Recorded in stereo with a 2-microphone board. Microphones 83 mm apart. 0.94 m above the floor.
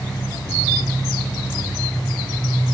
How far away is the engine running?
About 8 m.